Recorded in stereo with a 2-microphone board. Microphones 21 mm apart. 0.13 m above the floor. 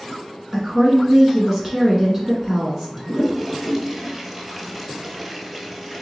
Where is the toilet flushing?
10° right (ahead or behind), 0.8 m.